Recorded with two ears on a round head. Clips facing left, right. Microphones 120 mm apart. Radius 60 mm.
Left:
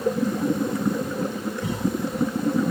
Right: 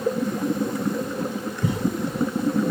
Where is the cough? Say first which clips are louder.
Right 2 dB; 40° right (ahead or behind), 6 m.